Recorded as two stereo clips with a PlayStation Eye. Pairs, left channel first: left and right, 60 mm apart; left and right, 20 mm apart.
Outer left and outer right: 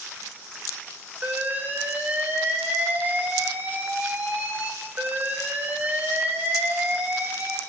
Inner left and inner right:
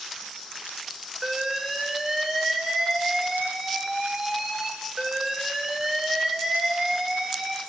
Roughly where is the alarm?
Right.